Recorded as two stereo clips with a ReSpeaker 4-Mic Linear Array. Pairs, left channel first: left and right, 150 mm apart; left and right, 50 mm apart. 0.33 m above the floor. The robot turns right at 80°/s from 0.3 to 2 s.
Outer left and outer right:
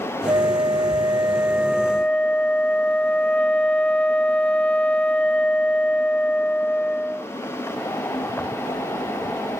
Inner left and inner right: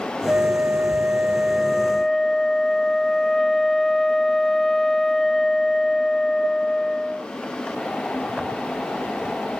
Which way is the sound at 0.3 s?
120° right.